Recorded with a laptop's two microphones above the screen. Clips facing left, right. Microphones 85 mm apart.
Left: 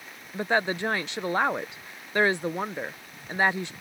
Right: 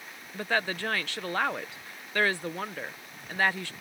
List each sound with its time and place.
0.3 s a woman speaking: 20° left (ahead or behind)